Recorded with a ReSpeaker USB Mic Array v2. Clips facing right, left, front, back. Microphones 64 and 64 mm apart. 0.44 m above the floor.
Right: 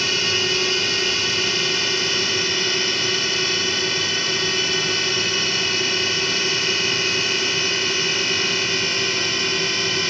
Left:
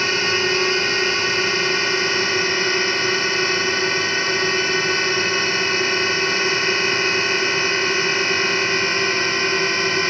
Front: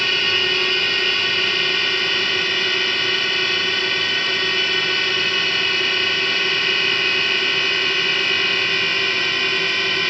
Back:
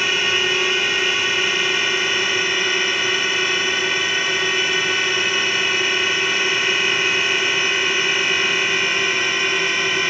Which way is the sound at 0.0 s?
105° left.